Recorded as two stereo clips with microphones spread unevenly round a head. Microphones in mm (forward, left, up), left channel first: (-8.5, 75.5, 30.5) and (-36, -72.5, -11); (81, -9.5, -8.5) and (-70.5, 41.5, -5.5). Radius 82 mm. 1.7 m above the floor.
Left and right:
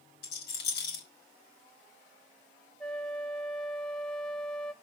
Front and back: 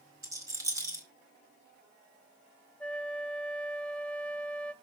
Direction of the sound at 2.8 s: 55° left.